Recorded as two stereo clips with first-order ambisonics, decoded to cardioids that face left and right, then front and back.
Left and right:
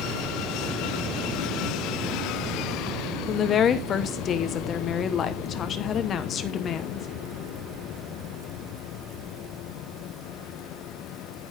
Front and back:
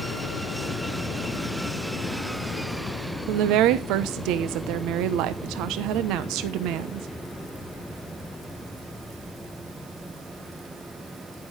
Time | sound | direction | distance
3.3 | a woman speaking | 150° left | 0.8 m